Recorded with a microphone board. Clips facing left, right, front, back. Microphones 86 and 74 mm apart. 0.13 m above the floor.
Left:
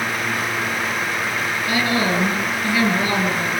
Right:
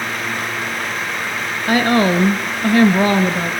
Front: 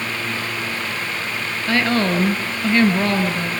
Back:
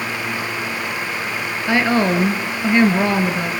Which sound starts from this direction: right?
A woman speaking, at 1.7 s.